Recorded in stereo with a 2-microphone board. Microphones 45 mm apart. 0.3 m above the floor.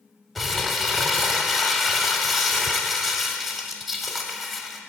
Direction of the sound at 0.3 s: 5° left (ahead or behind).